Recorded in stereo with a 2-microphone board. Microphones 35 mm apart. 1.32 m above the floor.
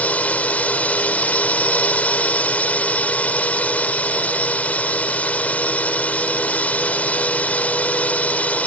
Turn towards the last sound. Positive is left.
turn(degrees=45)  # may be behind; listen again after turning